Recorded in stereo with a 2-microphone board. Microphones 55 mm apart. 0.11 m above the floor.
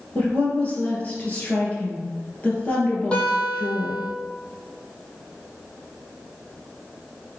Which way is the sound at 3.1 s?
20° left (ahead or behind).